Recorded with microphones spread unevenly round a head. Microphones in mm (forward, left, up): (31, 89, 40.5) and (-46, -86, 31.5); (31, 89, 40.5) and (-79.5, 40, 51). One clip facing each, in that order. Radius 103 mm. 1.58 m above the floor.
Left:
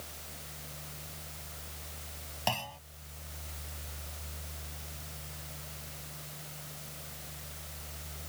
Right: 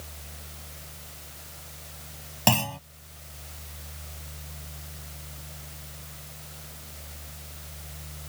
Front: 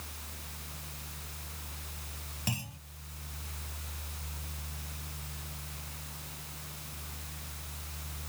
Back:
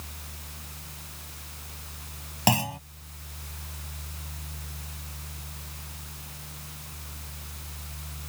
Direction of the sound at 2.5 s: 135° right.